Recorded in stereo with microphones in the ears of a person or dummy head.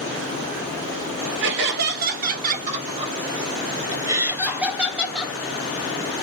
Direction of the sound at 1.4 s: 60° right (ahead or behind).